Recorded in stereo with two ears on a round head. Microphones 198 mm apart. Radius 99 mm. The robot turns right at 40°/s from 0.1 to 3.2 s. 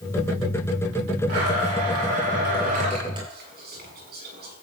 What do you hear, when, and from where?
1.3 s a blender: 100° right, 8 m; by 3.2 s 20° right, 8 m
3.3 s whispering: 50° right (ahead or behind), 6 m